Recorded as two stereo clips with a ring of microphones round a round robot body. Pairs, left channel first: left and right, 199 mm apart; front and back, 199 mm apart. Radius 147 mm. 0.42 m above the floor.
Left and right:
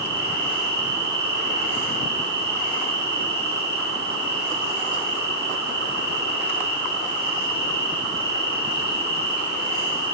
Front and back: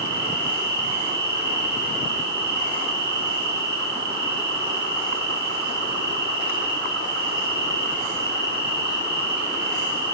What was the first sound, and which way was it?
An insect, 135° right.